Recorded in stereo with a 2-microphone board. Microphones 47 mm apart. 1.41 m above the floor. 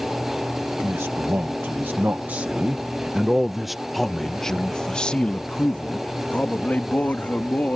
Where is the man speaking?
70° right (ahead or behind); by 7.8 s 40° left (ahead or behind).